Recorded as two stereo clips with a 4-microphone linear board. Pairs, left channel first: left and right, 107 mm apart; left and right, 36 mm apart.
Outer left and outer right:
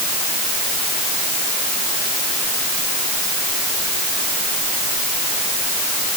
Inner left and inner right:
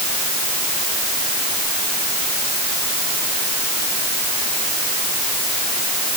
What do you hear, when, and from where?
Only background noise.